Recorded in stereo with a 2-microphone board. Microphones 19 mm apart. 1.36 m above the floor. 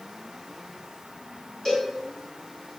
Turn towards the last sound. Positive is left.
turn(degrees=25)  # may be behind; listen again after turning